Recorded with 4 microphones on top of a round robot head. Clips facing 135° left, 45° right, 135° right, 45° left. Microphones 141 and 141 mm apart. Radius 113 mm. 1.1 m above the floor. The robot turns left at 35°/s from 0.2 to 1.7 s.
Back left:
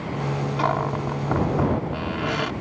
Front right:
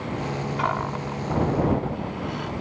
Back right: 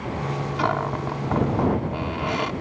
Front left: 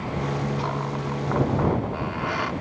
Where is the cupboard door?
165° right; by 2.5 s 155° left.